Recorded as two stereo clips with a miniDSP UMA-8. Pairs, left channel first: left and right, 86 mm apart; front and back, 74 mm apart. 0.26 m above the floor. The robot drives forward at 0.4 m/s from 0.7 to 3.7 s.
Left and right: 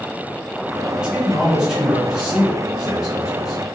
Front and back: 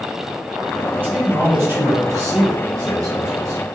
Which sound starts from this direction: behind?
A man speaking, at 0.9 s.